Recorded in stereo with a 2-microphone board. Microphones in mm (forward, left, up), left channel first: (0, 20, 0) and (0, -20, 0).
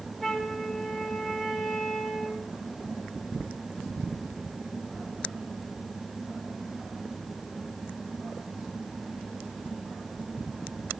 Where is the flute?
Centre (ahead or behind), 2 m.